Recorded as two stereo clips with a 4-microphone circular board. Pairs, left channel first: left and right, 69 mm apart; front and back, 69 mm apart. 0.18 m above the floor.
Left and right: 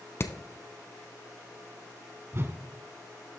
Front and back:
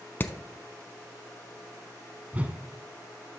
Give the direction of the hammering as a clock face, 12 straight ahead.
10 o'clock.